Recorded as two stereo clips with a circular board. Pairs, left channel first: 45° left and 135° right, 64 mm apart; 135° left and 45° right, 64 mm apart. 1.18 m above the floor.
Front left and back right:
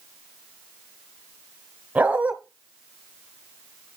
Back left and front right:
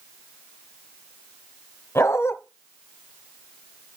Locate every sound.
1.9 s a dog barking: 170° left, 1.5 m